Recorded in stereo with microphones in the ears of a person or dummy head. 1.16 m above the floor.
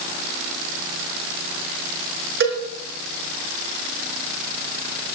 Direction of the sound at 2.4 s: 60° right (ahead or behind).